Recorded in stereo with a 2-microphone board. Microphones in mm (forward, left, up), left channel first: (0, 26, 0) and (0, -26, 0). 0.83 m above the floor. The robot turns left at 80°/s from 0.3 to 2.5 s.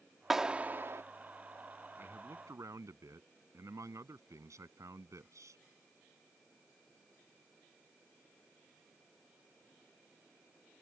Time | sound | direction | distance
0.3 | a clap | 5° right | ?
2.0 | a man speaking | 45° right | ?